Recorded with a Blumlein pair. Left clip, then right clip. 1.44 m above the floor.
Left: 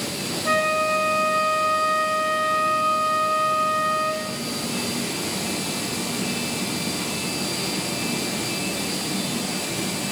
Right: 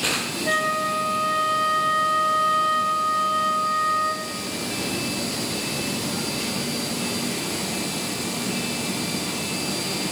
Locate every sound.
0.5 s a flute: 15° left, 1.4 m